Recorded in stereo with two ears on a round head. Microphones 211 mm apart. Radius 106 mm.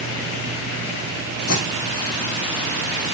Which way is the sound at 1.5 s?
65° left (ahead or behind).